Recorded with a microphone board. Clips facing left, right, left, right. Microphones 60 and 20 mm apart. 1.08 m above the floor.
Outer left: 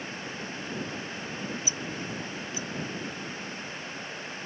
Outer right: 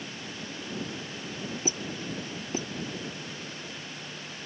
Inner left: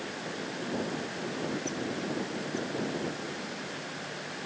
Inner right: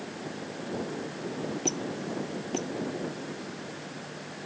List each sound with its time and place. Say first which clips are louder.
1.6 s a squeak: outer right 1 dB, inner right 2 dB; 45° right (ahead or behind)